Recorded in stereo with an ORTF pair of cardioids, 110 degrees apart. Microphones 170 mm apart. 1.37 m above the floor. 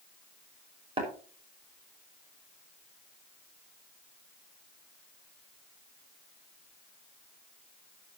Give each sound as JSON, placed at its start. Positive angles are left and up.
{"t": 1.0, "sound": "tapping", "azimuth_deg": -30, "distance_m": 5.5}